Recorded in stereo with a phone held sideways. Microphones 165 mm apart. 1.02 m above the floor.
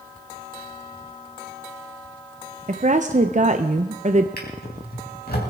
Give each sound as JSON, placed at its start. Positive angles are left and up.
{"t": 2.7, "sound": "a woman speaking", "side_deg": -50, "distance_m": 0.6}
{"t": 4.4, "sound": "a drawer", "side_deg": 70, "distance_m": 4.0}